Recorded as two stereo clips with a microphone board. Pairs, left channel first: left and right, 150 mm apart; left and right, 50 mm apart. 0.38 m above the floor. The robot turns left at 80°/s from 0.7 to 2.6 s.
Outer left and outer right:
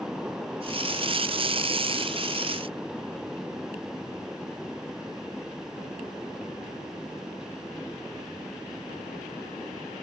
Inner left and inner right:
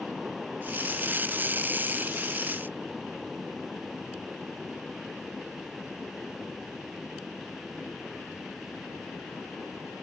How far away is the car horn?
No car horn in this recording.